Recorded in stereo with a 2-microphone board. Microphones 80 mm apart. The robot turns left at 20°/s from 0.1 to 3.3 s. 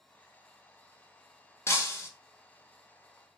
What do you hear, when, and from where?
1.7 s breaking glass: 30° left (ahead or behind), 0.7 m; by 2.1 s 35° left (ahead or behind), 0.7 m